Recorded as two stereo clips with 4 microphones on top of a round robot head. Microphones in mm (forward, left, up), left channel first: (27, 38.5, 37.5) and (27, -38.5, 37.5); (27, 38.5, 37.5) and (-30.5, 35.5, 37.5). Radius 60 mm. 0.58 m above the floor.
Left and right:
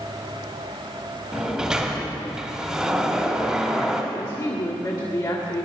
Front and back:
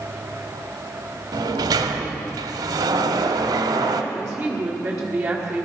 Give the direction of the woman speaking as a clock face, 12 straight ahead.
8 o'clock.